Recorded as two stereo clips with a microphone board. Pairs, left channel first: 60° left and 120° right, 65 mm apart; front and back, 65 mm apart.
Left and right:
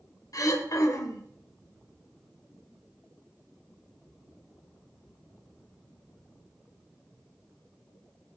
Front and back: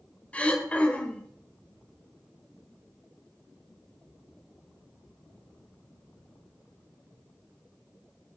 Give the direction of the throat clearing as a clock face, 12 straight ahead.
10 o'clock.